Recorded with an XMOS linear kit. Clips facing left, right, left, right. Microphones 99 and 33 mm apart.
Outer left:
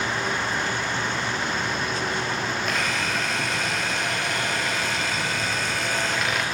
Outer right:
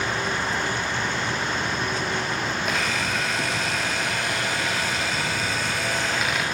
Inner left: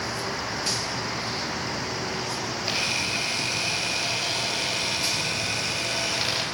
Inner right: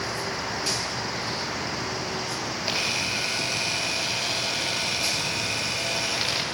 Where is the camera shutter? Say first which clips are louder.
Even, even; 5° right (ahead or behind), 3.5 m.